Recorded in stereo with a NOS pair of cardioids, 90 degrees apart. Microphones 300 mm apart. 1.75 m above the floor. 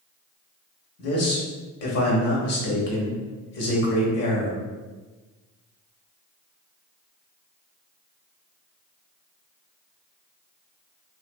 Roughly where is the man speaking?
Ahead left.